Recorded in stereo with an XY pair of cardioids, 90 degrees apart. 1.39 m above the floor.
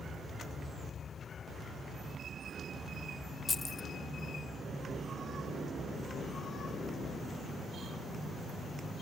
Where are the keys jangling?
40° left, 0.7 m.